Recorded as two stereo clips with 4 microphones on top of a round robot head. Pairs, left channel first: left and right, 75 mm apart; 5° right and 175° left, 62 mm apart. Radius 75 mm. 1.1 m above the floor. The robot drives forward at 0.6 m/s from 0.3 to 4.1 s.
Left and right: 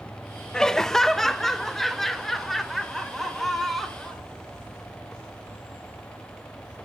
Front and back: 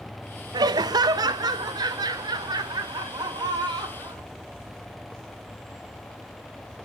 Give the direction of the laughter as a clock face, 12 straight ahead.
6 o'clock.